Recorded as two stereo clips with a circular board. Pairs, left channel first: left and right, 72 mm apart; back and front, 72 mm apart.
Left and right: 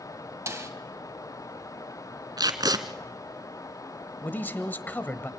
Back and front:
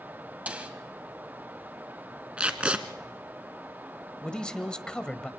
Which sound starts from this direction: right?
Tape being pulled, at 2.4 s.